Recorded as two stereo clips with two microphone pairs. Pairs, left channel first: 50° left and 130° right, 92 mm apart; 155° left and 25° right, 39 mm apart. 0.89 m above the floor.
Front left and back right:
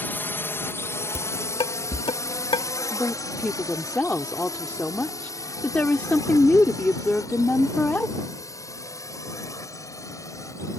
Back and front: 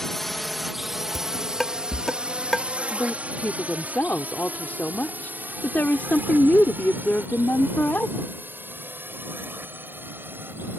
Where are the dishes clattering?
70° left.